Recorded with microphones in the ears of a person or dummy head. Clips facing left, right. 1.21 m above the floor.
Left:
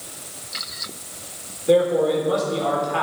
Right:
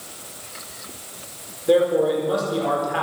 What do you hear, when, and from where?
1.7 s a man speaking: 10° right (ahead or behind), 4.5 m